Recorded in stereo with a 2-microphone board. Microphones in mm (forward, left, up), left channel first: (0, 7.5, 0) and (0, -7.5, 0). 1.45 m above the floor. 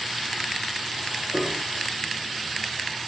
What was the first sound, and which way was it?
A piano, 5° right (ahead or behind).